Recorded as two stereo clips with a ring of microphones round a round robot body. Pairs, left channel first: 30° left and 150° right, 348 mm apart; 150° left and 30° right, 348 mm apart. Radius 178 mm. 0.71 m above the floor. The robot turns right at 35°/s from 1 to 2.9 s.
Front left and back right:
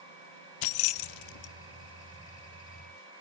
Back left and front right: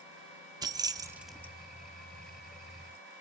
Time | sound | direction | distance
0.6 | keys jangling | 50° left | 0.6 m